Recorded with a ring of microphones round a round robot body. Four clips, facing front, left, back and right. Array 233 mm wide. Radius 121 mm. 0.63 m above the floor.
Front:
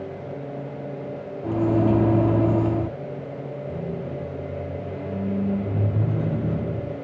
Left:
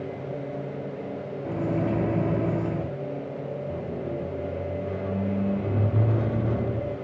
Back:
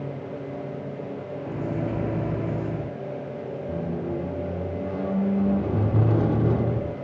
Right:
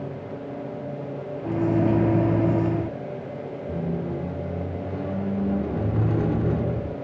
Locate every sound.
1.4 s a microwave: 35° right, 0.7 m
3.7 s a squeak: 155° right, 0.8 m